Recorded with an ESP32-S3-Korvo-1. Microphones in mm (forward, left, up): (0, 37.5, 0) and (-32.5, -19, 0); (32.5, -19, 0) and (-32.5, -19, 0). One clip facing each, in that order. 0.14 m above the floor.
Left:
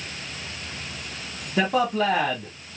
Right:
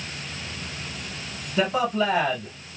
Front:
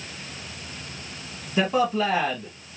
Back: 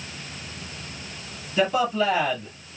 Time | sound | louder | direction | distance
1.6 | a man speaking | left 1 dB, even | 70° left | 3 m